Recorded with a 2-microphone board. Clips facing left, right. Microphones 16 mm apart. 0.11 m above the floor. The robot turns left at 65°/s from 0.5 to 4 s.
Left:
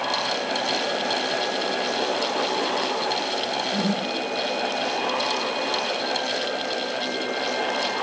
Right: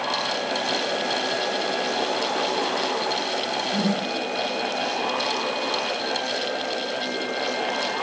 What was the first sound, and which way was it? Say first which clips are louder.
A whoosh: right 2 dB; 10° right (ahead or behind).